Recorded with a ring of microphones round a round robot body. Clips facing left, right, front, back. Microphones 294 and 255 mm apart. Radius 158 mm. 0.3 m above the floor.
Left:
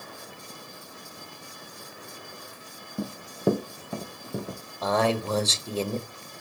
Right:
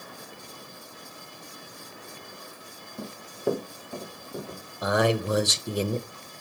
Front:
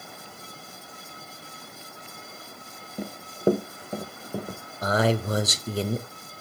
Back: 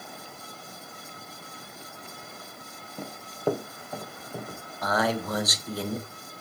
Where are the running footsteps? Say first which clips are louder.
Left 4 dB, front 5 dB; 75° left, 1.0 m; by 4.6 s 55° left, 2.5 m.